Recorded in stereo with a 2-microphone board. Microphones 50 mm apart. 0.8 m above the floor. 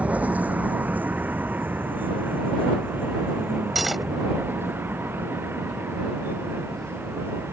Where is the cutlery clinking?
5° right (ahead or behind).